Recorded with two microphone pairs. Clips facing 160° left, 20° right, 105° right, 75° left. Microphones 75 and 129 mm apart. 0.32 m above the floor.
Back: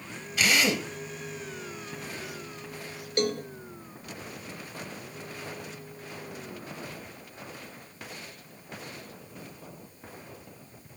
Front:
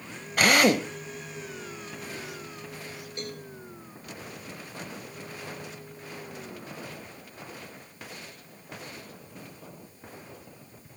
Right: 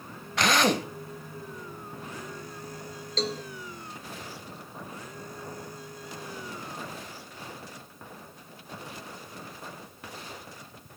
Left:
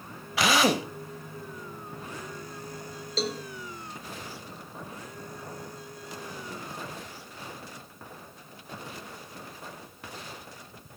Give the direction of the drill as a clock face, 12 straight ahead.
12 o'clock.